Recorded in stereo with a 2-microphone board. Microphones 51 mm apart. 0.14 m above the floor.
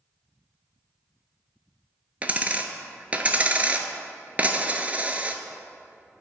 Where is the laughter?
I don't hear laughter.